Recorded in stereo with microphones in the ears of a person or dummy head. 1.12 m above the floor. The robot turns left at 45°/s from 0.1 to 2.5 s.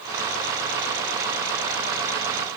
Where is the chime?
No chime in this recording.